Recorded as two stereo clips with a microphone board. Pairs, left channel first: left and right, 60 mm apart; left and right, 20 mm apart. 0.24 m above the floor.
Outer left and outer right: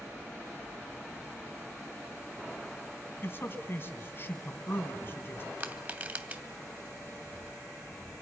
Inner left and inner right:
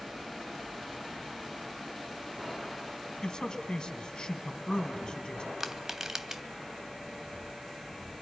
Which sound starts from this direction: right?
Crushing, at 5.6 s.